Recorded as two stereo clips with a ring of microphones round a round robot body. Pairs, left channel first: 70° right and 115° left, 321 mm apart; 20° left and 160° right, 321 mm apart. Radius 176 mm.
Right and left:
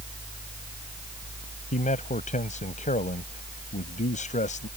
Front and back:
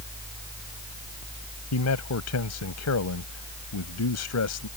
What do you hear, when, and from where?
1.7 s a man speaking: 5° right